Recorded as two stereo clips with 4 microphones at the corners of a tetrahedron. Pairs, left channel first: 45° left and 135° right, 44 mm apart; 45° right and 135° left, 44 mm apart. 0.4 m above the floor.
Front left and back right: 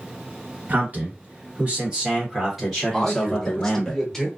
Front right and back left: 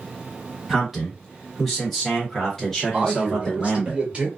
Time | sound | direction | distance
0.7 | a man speaking | 145° right | 1.7 m
2.9 | a man speaking | 115° left | 1.1 m